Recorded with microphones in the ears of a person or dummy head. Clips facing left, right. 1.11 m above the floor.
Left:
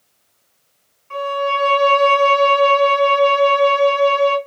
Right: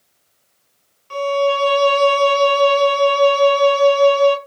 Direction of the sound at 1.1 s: 45° right (ahead or behind).